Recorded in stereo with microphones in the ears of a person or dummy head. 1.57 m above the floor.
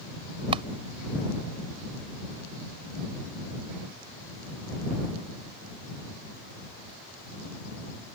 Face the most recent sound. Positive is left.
turn(degrees=-30)  # may be behind; listen again after turning